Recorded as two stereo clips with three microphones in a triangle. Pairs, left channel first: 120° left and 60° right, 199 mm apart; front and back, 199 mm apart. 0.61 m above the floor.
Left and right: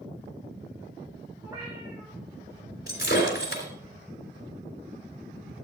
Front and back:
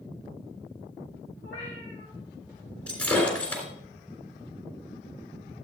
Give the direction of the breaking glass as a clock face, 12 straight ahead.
9 o'clock.